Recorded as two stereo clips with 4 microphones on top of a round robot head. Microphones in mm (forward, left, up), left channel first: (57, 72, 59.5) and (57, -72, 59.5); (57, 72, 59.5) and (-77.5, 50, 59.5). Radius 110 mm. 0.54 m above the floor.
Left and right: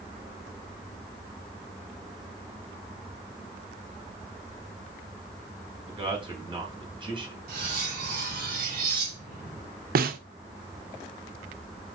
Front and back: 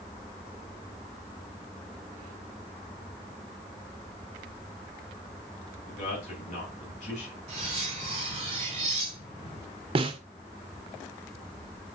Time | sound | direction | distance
5.9 | a man speaking | 35° right | 3 m
7.5 | cutlery clinking | 115° right | 3.5 m
9.9 | a snare drum | 115° right | 0.6 m